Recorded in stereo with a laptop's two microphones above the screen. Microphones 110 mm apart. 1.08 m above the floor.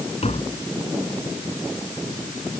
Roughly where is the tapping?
Left.